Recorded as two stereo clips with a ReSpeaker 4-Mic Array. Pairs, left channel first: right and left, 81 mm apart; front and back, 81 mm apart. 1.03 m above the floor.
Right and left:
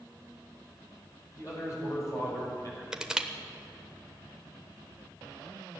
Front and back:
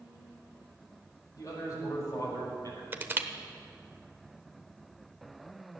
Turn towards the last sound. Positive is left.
turn(degrees=160)